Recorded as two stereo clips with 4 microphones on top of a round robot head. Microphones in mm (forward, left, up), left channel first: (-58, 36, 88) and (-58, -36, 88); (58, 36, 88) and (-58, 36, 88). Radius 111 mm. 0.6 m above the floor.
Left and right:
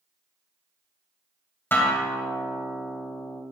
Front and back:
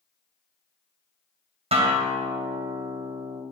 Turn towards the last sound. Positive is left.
turn(degrees=150)